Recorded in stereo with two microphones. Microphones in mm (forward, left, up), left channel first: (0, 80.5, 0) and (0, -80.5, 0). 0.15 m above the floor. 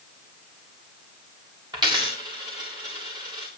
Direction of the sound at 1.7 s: 25° right (ahead or behind).